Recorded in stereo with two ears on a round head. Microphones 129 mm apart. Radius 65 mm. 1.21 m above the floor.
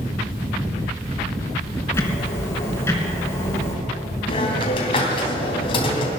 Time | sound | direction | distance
1.9 | ticking | 20° left (ahead or behind) | 3 m
4.3 | a hiss | 35° left (ahead or behind) | 3 m